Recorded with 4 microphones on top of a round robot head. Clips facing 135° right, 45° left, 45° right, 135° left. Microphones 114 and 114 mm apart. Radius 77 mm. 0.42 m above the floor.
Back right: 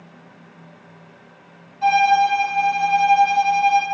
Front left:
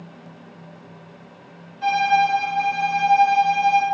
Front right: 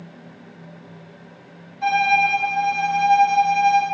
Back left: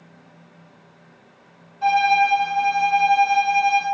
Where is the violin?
155° right, 1.4 m.